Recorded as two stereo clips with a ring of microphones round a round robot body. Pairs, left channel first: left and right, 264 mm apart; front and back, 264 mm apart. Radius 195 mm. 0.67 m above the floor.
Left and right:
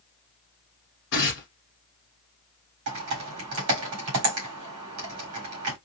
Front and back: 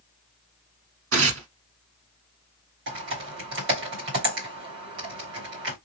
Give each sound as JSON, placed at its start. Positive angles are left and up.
{"t": 1.1, "sound": "tearing paper", "azimuth_deg": 150, "distance_m": 1.1}
{"t": 2.9, "sound": "typing on a keyboard", "azimuth_deg": -130, "distance_m": 1.6}